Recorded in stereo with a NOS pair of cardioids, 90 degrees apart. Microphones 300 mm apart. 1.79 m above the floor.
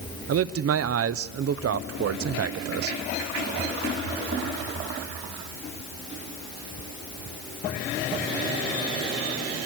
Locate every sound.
0.3 s a man speaking: 50° right, 1.1 m